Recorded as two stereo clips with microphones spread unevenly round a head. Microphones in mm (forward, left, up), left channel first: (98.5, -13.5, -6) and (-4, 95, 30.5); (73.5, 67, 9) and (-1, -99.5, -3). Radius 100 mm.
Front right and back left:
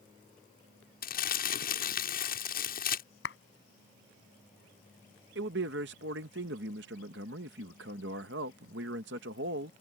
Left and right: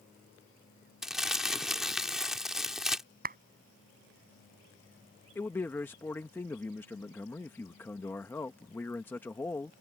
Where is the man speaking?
145° left.